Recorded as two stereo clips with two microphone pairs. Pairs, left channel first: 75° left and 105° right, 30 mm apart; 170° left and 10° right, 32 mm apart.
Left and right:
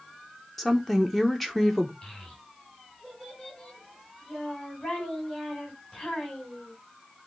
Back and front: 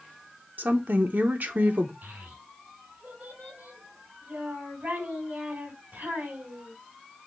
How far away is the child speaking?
About 3.5 m.